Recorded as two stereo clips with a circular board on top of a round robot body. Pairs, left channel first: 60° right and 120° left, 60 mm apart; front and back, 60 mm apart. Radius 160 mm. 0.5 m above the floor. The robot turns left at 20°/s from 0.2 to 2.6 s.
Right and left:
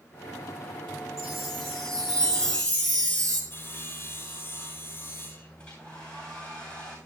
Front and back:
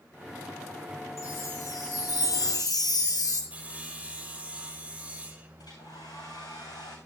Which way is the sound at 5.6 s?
10° left.